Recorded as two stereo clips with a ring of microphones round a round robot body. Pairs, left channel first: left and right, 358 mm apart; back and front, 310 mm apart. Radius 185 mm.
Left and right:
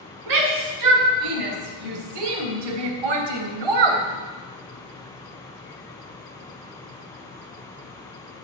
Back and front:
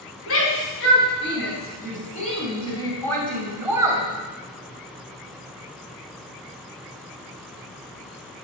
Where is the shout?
125° right, 6 m; by 4.0 s 80° right, 3.5 m.